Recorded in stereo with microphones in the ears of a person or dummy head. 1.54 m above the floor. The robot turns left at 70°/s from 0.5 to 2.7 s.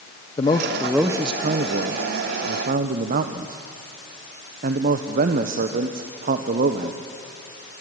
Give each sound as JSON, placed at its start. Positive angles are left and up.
{"t": 0.4, "sound": "a man speaking", "azimuth_deg": 25, "distance_m": 1.2}